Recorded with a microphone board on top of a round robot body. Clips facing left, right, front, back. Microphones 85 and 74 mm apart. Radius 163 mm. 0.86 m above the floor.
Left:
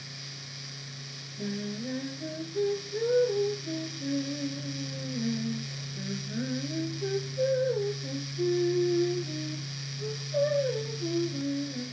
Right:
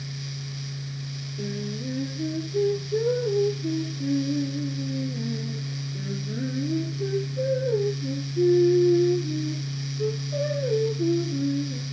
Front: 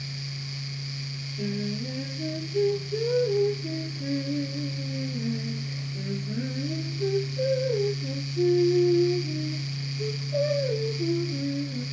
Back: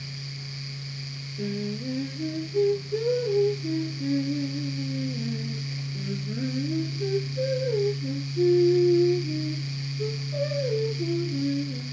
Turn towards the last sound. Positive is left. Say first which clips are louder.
# right 2 dB, even
turn(degrees=-100)